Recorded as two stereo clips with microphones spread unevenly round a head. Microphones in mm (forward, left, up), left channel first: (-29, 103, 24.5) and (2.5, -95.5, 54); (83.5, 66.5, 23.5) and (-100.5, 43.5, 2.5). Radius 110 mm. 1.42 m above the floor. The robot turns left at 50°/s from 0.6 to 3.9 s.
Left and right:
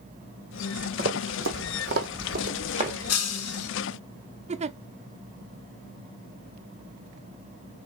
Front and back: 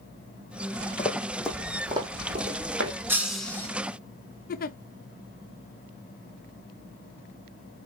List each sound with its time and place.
1.0 s running footsteps: 55° right, 2.5 m; by 3.0 s 145° right, 3 m
3.1 s breaking glass: 105° left, 3 m; by 3.7 s 75° left, 3 m
4.5 s a giggle: 25° right, 0.6 m